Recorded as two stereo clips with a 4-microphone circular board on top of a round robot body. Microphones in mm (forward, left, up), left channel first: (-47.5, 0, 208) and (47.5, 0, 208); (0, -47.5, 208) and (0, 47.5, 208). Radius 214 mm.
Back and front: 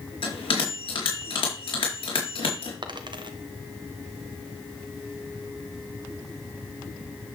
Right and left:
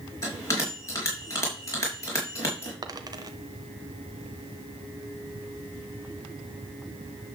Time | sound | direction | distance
0.2 | a bell | 150° right | 4.5 m
2.8 | a dropped coin | 40° left | 1.1 m